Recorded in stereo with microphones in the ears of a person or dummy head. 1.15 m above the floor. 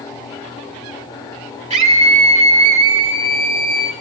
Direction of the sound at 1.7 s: 30° right (ahead or behind).